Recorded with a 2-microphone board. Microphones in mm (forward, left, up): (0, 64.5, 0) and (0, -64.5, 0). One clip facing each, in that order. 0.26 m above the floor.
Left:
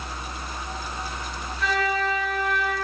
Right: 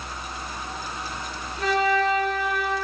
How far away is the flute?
About 5 m.